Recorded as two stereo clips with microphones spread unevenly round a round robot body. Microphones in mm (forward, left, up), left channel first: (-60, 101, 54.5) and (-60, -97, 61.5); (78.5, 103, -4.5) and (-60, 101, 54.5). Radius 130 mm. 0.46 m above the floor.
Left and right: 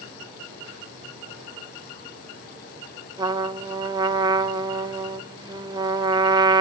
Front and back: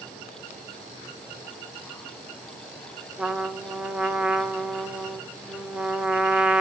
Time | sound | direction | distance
3.2 | a trumpet | 45° right | 0.6 m